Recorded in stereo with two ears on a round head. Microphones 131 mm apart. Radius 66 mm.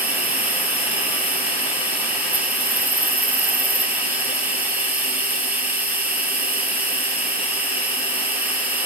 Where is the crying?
No crying in this recording.